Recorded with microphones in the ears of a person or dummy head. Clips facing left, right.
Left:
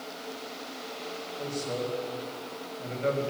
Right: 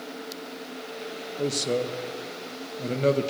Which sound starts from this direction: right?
A man speaking, at 1.4 s.